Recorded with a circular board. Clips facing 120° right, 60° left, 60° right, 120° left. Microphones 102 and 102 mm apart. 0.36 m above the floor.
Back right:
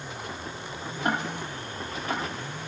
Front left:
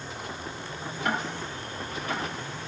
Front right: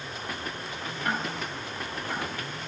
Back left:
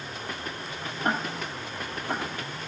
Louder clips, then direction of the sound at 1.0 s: Back right 2 dB, back left 2 dB; straight behind.